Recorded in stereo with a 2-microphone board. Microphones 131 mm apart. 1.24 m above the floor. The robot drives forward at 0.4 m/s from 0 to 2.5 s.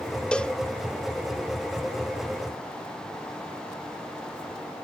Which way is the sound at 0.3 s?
10° left (ahead or behind).